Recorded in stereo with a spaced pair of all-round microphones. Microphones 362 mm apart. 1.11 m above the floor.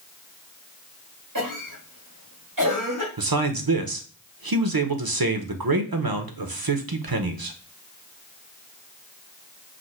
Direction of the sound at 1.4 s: 60° right (ahead or behind).